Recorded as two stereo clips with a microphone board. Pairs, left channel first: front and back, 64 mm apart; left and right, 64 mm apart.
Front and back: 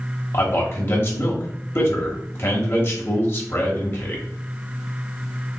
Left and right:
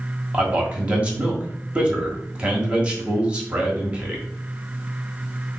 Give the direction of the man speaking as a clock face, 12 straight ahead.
1 o'clock.